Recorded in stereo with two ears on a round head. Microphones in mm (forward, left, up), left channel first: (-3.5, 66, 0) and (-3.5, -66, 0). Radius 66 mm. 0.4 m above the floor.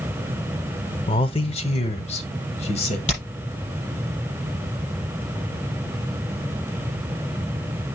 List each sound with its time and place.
1.1 s a man speaking: 35° left (ahead or behind), 0.9 m; by 3.0 s 45° left (ahead or behind), 1.8 m
3.1 s hammering: 50° left (ahead or behind), 6 m